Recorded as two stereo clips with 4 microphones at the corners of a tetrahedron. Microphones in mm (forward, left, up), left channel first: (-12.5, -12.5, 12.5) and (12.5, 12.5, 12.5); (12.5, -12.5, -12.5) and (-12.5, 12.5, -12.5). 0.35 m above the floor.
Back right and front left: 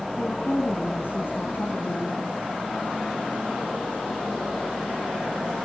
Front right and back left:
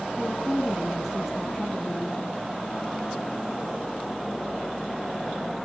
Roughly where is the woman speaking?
Behind right.